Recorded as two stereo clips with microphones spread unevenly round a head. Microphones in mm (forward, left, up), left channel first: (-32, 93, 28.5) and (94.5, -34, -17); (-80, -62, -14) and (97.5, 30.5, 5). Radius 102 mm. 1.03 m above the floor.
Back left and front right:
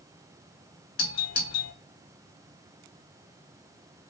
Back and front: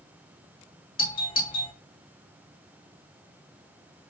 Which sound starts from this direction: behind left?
A doorbell, at 1.0 s.